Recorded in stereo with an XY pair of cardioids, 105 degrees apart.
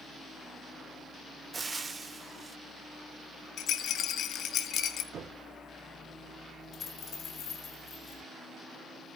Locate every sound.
1.5 s frying: 25° right, 0.8 m
3.6 s a rattle: 70° left, 1.0 m
5.1 s knocking: 65° right, 3.5 m
6.7 s a dropped coin: 60° left, 5 m